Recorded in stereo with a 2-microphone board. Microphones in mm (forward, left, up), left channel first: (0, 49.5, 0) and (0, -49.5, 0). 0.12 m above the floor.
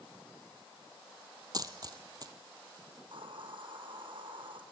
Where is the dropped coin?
40° right (ahead or behind), 1.0 m.